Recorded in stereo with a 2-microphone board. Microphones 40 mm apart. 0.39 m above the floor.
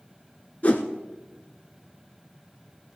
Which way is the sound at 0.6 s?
40° left (ahead or behind).